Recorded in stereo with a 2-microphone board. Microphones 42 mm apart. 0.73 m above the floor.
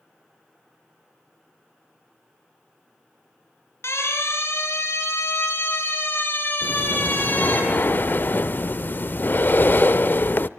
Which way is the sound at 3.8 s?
80° left.